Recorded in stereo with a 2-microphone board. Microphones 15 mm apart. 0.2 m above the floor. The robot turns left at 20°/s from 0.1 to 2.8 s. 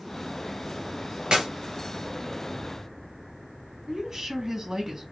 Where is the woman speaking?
45° right (ahead or behind), 2 m.